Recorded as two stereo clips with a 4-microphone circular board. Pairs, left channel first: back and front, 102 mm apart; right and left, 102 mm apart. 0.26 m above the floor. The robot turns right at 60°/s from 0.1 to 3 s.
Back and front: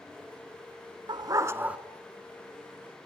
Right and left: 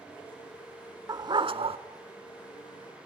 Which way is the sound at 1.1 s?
40° left.